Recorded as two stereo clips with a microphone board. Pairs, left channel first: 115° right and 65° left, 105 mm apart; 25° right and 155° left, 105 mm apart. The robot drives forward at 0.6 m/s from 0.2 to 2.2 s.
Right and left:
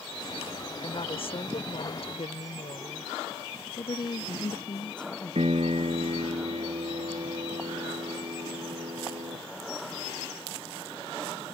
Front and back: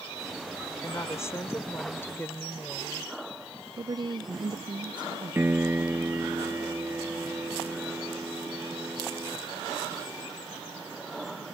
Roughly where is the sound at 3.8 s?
Behind.